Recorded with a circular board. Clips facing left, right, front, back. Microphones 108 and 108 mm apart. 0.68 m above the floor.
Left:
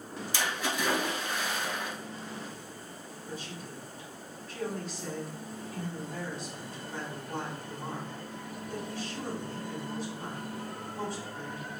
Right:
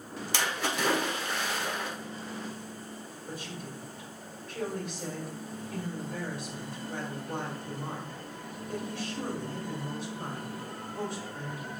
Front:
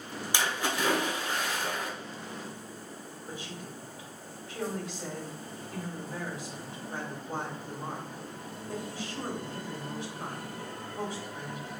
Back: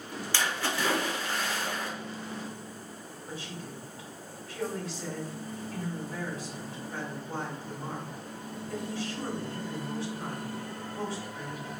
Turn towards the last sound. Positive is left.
turn(degrees=-75)